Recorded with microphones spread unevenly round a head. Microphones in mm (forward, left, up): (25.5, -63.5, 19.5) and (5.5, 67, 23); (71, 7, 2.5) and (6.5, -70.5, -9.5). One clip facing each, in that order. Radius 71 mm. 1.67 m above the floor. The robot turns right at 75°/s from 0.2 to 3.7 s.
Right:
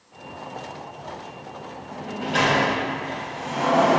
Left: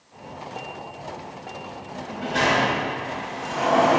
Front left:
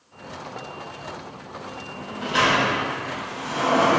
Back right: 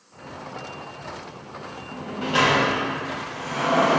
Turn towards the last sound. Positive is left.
turn(degrees=5)